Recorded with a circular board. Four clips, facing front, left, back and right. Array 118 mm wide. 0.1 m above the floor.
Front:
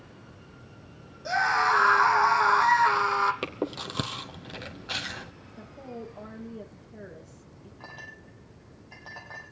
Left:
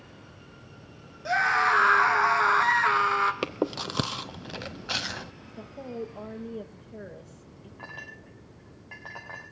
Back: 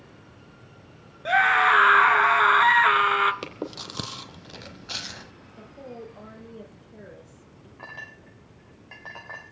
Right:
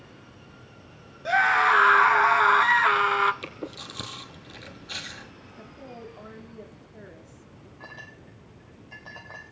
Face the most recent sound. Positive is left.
turn(degrees=140)